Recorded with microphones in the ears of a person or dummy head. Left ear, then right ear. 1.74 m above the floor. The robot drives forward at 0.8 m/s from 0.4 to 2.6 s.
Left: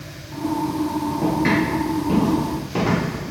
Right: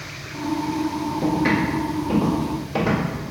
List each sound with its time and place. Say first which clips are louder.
1.2 s footsteps: left 1 dB; 15° left (ahead or behind), 1.8 m; by 3.2 s 10° left (ahead or behind), 3.5 m